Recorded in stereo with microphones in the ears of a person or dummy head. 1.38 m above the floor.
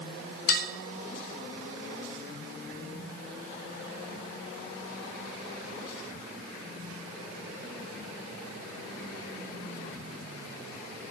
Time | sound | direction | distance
0.5 | dishes clattering | 60° left (ahead or behind) | 1.8 m